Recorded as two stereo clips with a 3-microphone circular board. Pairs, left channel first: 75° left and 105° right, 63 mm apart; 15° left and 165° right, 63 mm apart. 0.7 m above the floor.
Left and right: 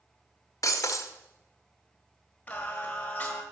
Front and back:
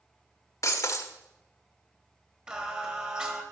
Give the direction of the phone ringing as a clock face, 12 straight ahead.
No phone ringing in this recording.